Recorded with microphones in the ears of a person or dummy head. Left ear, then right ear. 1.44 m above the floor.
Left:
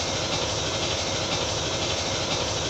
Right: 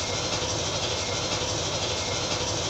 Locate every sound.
0.0 s an engine running: 10° left (ahead or behind), 0.9 m